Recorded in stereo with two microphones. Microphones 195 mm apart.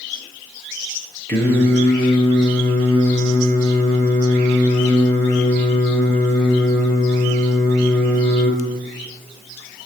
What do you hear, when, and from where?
1.3 s singing: 10° left (ahead or behind), 6.5 m